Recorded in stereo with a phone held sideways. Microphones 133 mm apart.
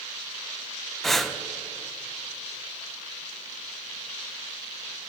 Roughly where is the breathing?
Centre.